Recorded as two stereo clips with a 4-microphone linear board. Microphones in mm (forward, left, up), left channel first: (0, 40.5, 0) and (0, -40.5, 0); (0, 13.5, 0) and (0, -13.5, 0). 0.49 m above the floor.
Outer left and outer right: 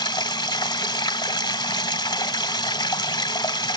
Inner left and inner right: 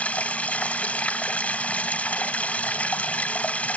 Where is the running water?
75° left (ahead or behind), 1.3 m.